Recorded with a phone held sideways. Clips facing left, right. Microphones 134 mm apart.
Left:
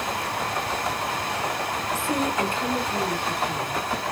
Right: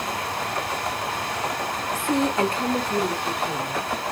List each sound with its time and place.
1.9 s a woman speaking: 15° right (ahead or behind), 0.7 m; by 3.8 s 60° right (ahead or behind), 1.8 m